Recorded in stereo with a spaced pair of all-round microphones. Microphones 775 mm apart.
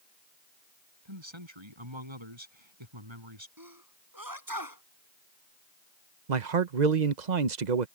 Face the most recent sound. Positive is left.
turn(degrees=-60)  # may be behind; listen again after turning